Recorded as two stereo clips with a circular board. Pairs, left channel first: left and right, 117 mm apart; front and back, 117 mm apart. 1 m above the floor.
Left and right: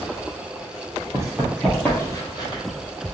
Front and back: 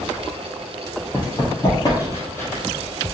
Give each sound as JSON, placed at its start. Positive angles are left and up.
{"t": 1.1, "sound": "running footsteps", "azimuth_deg": -40, "distance_m": 1.3}